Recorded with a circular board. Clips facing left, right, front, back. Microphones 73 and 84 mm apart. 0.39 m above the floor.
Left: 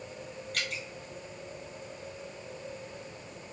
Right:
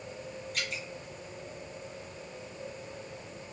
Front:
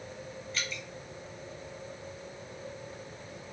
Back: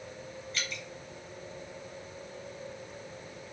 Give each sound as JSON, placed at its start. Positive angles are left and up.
{"t": 0.5, "sound": "dripping", "azimuth_deg": 90, "distance_m": 1.4}